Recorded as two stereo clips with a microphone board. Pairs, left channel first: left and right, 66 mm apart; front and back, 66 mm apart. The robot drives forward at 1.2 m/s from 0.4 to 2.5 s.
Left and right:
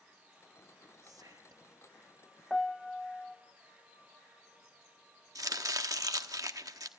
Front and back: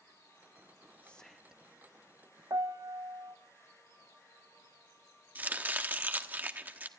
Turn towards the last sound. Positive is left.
turn(degrees=-115)